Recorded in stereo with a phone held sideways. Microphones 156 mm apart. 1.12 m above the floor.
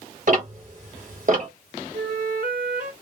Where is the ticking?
55° right (ahead or behind), 1.7 m.